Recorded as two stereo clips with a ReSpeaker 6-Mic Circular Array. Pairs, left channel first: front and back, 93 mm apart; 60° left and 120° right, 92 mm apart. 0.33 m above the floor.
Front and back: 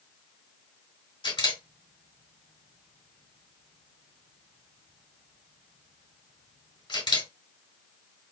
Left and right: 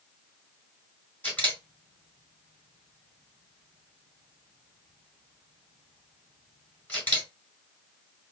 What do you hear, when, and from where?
1.2 s a camera shutter: 5° right, 3 m